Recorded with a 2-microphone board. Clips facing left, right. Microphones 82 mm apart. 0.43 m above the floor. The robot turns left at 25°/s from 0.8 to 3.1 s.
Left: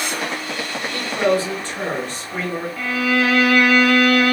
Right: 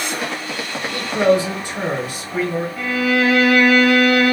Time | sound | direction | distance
0.9 | a man speaking | 20° right (ahead or behind) | 0.9 m
2.8 | a violin | 15° right (ahead or behind) | 1.6 m